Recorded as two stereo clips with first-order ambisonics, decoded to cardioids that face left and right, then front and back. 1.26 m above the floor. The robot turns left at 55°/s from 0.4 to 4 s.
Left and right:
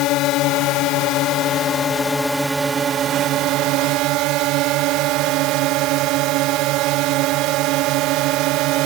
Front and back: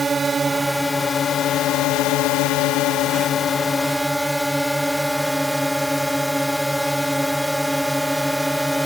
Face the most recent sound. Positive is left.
turn(degrees=-90)